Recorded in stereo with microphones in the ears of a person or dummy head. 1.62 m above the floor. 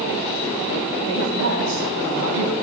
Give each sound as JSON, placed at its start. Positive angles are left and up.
{"t": 1.1, "sound": "a woman speaking", "side_deg": -65, "distance_m": 5.0}